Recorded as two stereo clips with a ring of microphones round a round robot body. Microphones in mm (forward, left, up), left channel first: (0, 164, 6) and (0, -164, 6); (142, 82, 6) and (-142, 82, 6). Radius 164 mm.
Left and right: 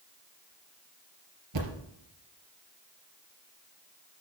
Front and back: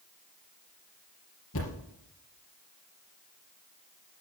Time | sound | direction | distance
1.5 | a thud | 55° right | 3.5 m